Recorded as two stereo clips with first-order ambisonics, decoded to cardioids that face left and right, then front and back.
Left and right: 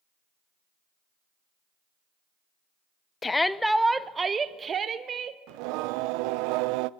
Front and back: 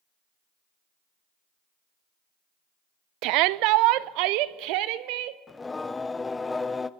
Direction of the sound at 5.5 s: 80° right.